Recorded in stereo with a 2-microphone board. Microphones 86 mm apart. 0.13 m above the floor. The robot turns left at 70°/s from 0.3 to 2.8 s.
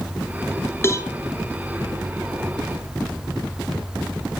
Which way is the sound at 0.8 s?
30° left (ahead or behind).